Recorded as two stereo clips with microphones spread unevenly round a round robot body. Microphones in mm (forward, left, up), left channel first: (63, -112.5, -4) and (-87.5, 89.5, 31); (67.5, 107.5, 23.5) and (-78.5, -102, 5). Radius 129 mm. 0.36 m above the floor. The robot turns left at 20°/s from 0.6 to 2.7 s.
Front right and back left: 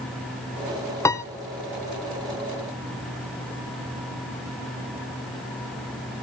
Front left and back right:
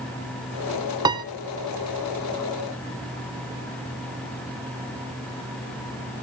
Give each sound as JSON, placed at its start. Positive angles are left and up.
{"t": 1.1, "sound": "a piano", "azimuth_deg": -90, "distance_m": 0.7}